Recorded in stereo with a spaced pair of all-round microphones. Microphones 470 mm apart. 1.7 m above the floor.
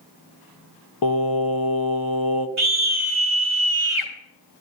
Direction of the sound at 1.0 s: 50° left (ahead or behind).